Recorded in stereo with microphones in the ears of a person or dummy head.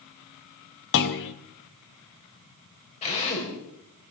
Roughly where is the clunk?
Left.